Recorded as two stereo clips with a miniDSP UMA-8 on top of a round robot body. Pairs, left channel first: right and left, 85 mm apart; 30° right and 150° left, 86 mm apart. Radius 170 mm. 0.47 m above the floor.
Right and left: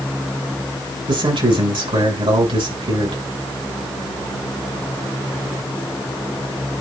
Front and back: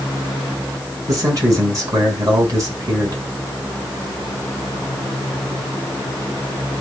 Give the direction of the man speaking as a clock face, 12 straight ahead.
9 o'clock.